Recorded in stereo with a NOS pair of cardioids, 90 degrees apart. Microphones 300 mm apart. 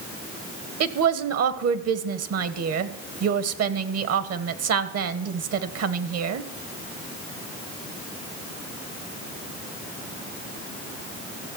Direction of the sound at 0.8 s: 65° right.